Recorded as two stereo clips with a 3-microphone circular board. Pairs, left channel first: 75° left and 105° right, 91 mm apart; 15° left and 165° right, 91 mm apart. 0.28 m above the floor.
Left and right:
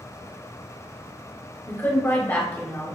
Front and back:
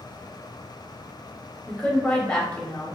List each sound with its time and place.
1.7 s a woman speaking: 75° left, 0.9 m